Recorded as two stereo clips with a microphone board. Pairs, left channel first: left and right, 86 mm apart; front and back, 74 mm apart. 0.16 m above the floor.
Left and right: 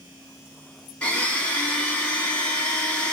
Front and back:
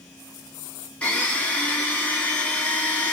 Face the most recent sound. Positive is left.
turn(degrees=40)